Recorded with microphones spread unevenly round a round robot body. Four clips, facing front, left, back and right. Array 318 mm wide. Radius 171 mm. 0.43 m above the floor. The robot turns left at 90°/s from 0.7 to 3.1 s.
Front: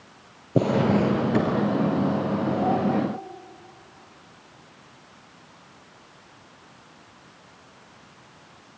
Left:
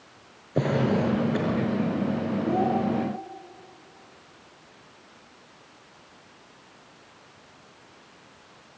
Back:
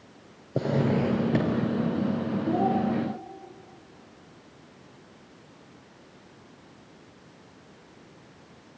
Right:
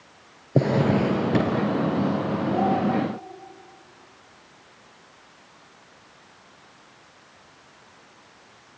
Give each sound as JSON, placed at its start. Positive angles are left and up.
{"t": 0.6, "sound": "a drawer", "azimuth_deg": -55, "distance_m": 5.0}
{"t": 2.5, "sound": "a child speaking", "azimuth_deg": 130, "distance_m": 9.0}